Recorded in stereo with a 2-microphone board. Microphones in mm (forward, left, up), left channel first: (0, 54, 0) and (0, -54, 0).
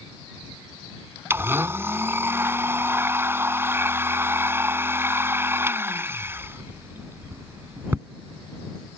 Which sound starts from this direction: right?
A blender, at 1.3 s.